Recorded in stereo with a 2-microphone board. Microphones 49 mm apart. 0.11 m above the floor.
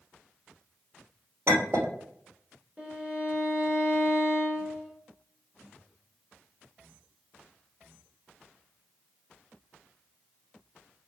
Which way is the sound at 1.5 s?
55° right (ahead or behind).